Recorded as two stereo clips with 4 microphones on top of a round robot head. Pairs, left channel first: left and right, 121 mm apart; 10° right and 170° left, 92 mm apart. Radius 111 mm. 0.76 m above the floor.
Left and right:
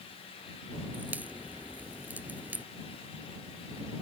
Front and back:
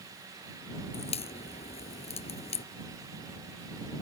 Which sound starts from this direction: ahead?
A crack, at 0.9 s.